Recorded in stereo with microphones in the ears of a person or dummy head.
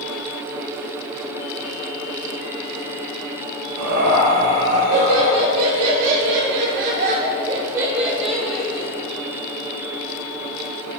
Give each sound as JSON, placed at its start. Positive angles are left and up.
{"t": 3.8, "sound": "laughter", "side_deg": -80, "distance_m": 1.9}